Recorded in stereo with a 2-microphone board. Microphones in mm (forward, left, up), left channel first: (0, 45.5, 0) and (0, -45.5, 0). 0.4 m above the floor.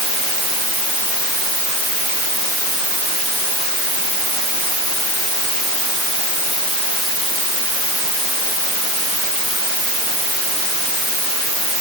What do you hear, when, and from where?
Only background noise.